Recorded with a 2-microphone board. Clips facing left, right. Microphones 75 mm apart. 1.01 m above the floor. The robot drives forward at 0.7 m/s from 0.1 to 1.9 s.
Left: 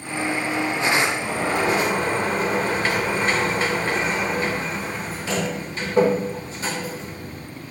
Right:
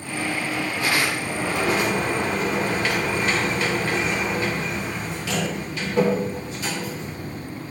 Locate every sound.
1.3 s a sliding door: 40° left (ahead or behind), 1.9 m; by 7.5 s 35° left (ahead or behind), 2 m